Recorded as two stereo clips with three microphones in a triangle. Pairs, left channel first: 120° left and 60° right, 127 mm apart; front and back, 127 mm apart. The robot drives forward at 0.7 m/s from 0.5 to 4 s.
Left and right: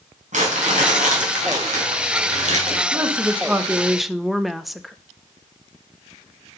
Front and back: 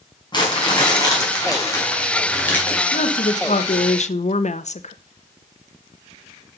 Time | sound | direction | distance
0.3 | crumpling | 50° right | 3.5 m
2.9 | a woman speaking | 15° left | 1.3 m